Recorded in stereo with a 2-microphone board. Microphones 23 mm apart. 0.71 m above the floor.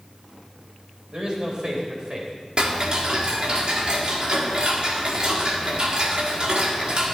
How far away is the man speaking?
About 4 m.